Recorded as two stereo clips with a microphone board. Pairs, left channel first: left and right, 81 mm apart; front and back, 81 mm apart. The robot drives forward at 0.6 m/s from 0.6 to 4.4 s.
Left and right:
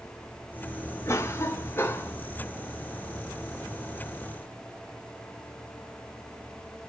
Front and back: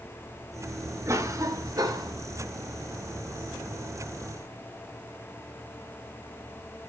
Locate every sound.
1.1 s a cough: 135° left, 1.9 m; by 2.1 s 150° left, 2.5 m